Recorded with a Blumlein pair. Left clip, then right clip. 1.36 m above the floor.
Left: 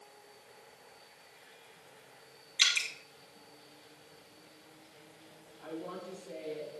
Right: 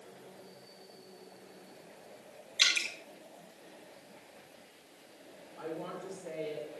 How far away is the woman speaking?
About 3 m.